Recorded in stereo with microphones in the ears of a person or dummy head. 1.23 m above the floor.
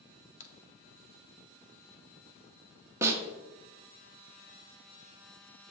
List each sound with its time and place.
0.4 s a crack: 45° left (ahead or behind), 0.8 m
3.0 s a snare drum: 5° right (ahead or behind), 0.7 m